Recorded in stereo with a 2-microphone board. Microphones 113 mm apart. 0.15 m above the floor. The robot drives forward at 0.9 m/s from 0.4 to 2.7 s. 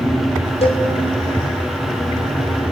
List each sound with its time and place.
0.6 s a cowbell: 55° left (ahead or behind), 2 m; by 0.9 s 60° left (ahead or behind), 2 m